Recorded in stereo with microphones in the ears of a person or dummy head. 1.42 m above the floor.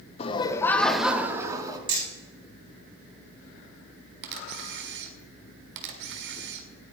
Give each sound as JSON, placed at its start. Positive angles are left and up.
{"t": 0.2, "sound": "laughter", "side_deg": 35, "distance_m": 1.3}
{"t": 1.9, "sound": "hammering", "side_deg": -25, "distance_m": 7.5}
{"t": 4.2, "sound": "a camera shutter", "side_deg": -60, "distance_m": 1.9}